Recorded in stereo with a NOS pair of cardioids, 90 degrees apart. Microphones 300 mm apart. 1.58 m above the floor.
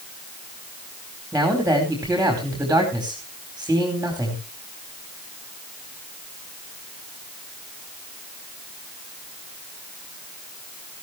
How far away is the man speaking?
About 4.5 m.